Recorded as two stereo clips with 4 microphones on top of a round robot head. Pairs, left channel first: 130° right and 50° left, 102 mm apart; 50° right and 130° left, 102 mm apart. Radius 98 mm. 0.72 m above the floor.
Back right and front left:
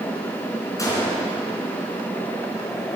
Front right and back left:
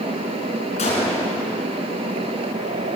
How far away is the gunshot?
About 3.5 m.